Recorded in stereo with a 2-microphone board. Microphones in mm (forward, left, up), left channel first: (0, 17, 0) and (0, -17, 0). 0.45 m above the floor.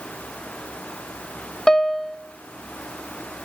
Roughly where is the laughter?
I don't hear laughter.